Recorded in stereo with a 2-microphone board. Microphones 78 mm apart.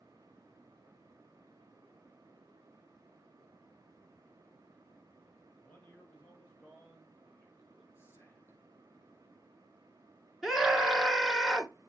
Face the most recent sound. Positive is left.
turn(degrees=-5)  # may be behind; listen again after turning